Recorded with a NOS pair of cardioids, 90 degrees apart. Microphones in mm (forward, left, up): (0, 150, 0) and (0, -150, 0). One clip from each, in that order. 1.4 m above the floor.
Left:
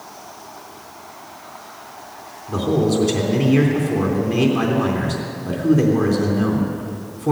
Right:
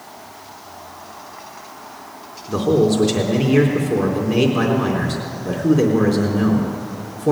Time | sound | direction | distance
2.5 | a man speaking | 5° right | 3.5 m